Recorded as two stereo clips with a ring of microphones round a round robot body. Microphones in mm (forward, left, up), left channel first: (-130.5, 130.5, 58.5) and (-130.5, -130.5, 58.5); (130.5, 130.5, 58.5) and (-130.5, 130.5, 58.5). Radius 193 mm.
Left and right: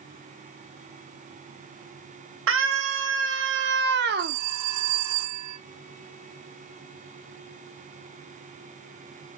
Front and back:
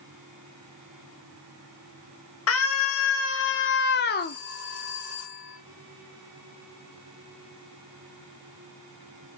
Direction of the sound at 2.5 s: 40° right.